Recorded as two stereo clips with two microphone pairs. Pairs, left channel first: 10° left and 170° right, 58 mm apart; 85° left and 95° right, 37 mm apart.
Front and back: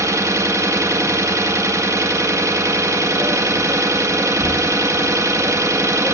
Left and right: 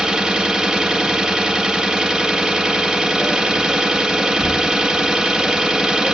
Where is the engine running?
165° right, 0.8 m.